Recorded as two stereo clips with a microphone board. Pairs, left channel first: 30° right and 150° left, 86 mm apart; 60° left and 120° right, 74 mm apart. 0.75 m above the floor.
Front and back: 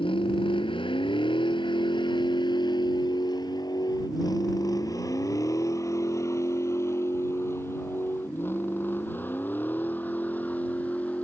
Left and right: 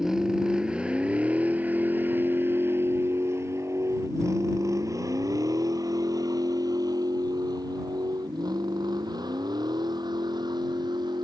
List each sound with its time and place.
0.0 s a vehicle: 35° right; by 11.2 s 105° right